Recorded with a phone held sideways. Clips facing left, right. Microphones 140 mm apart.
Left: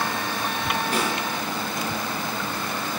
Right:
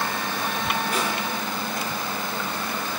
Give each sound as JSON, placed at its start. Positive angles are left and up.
{"t": 0.9, "sound": "a snare drum", "side_deg": 40, "distance_m": 7.0}